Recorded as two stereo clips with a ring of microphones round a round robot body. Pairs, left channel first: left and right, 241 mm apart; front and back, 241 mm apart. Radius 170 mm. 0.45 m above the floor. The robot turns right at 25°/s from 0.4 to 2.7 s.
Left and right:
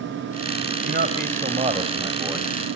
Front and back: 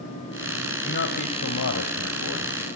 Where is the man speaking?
50° right, 3 m; by 2.5 s 10° right, 3 m.